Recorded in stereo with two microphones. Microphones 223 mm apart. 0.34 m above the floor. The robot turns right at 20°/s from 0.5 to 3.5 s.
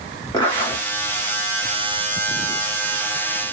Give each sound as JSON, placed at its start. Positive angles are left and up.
{"t": 0.3, "sound": "a zipper", "side_deg": 20, "distance_m": 1.6}